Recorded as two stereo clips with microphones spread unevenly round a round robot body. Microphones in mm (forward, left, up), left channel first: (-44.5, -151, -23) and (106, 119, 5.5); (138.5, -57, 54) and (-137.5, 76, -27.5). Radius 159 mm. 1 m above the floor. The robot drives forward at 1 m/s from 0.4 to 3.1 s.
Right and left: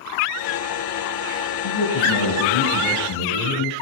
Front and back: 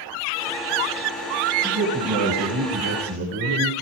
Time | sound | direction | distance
1.6 | a man speaking | 135° right | 9.5 m